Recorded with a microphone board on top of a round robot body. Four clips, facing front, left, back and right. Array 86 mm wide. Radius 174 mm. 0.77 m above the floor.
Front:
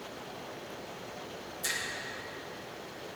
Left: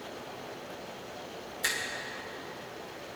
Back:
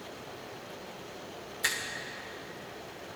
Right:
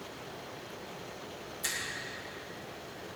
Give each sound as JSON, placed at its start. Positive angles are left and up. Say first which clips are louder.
{"t": 1.6, "sound": "a finger snap", "louder": "left 6 dB, back 4 dB", "azimuth_deg": 150, "distance_m": 2.5}